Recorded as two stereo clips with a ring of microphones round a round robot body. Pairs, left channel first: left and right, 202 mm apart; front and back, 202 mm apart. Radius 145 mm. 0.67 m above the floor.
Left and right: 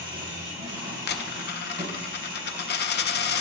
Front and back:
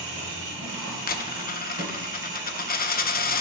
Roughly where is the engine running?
Behind right.